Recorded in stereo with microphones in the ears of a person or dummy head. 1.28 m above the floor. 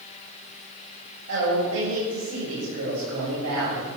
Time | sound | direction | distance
1.3 | a woman speaking | 80° right | 8.5 m